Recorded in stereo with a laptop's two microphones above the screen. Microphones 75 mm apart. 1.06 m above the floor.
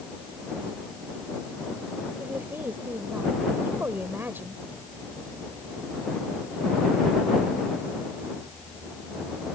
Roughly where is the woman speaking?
Right.